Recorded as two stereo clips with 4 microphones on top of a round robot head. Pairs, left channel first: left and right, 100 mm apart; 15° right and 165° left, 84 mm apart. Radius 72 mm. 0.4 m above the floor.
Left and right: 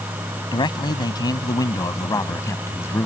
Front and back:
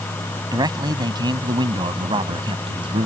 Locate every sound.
0.5 s a man speaking: 130° left; by 3.1 s 155° left